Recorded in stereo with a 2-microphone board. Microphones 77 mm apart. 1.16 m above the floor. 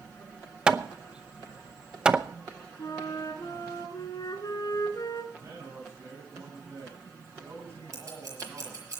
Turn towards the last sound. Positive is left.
turn(degrees=-45)  # may be behind; listen again after turning